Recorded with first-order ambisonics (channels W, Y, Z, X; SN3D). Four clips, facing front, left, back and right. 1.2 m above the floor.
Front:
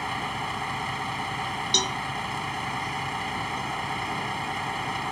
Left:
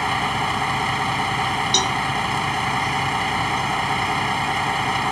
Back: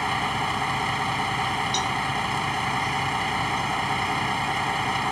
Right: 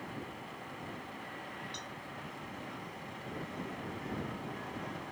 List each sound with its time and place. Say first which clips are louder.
0.0 s a vehicle: left 23 dB, back 5 dB; 105° left
1.7 s a cowbell: left 25 dB, front 1 dB; 65° left